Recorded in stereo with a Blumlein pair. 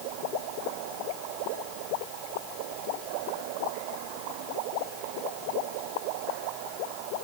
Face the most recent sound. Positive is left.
No sound to turn to.